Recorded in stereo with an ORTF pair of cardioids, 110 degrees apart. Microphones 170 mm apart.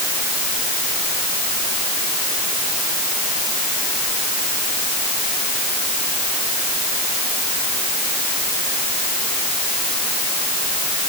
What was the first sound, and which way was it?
Only background noise.